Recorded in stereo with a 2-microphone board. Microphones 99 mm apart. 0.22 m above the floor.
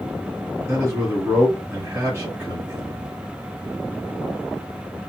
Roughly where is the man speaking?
Right.